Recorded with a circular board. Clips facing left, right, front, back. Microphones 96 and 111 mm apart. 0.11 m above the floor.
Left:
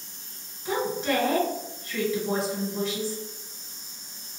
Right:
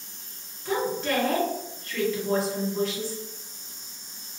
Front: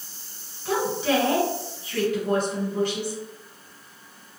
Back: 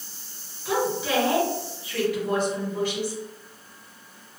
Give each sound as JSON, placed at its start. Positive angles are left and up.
{"t": 0.7, "sound": "a woman speaking", "azimuth_deg": 30, "distance_m": 2.0}